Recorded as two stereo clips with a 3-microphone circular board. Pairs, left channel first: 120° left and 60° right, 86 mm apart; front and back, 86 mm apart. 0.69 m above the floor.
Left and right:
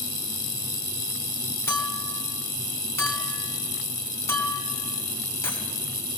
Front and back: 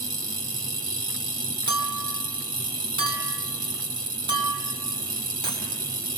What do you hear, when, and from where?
1.7 s a clink: straight behind, 4 m